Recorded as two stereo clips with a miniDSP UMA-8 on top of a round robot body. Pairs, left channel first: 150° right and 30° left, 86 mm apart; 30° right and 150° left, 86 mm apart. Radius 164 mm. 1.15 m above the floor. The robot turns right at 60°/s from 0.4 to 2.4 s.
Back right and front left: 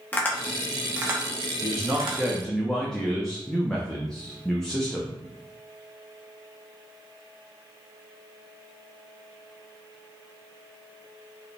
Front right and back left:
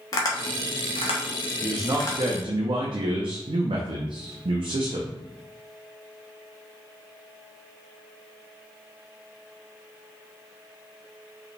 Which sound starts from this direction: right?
Tapping, at 0.1 s.